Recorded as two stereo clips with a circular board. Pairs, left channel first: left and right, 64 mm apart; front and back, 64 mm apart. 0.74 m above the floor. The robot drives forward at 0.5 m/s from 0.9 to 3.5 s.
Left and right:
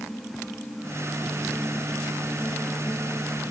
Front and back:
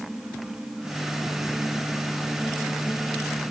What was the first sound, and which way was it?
Only background noise.